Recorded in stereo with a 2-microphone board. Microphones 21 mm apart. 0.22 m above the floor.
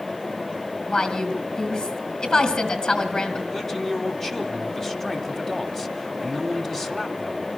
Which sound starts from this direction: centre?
A man speaking, at 3.5 s.